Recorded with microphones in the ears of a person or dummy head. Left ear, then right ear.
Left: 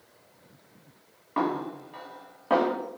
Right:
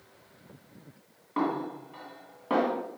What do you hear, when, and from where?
1.4 s a snare drum: 15° left (ahead or behind), 1.8 m